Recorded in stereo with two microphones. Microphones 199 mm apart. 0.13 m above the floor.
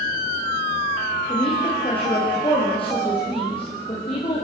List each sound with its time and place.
1.3 s a woman speaking: 30° left (ahead or behind), 6.5 m